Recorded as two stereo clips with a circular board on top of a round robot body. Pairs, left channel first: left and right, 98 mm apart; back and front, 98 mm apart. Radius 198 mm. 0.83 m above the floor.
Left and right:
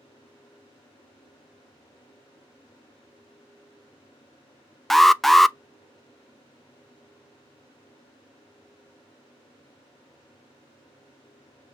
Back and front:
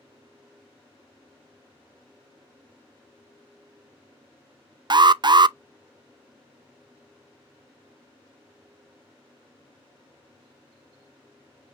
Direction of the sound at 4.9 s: 5° left.